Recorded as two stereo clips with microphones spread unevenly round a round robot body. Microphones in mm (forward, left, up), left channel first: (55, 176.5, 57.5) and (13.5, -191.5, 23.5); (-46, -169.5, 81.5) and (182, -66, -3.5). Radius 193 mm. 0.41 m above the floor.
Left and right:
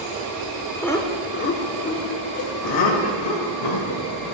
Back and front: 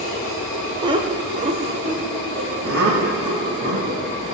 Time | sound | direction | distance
0.8 | laughter | 10° right | 1.2 m